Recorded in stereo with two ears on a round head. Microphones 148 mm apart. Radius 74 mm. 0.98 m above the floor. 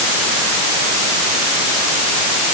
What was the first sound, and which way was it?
Only background noise.